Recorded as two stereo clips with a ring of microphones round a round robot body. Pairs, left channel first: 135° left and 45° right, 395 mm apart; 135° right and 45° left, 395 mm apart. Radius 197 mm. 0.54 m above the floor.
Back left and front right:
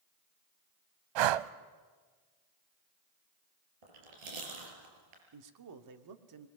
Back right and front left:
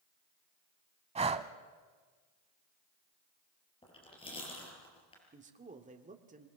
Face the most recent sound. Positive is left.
turn(degrees=-20)